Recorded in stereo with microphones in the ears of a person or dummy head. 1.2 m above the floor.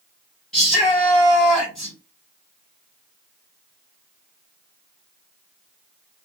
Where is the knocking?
I don't hear knocking.